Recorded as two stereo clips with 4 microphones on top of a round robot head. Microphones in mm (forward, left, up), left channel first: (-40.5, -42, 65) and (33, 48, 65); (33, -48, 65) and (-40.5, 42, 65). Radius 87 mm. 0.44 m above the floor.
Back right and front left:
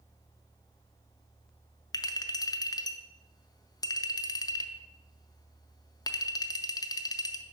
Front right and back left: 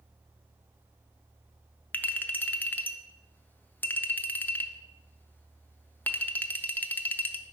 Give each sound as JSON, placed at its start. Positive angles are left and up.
{"t": 1.9, "sound": "a clink", "azimuth_deg": -110, "distance_m": 0.5}